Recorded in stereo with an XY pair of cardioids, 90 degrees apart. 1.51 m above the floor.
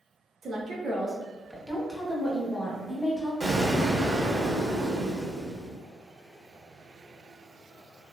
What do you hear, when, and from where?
0.4 s a woman speaking: 50° right, 0.8 m; by 3.3 s 30° left, 1.4 m
3.4 s an explosion: 25° right, 1.1 m